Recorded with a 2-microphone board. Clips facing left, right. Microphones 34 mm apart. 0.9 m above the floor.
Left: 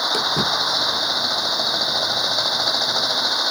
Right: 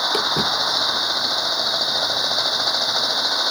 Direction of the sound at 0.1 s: 20° right (ahead or behind).